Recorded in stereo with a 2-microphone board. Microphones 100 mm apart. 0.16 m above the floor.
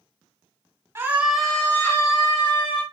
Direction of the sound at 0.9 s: 25° right (ahead or behind).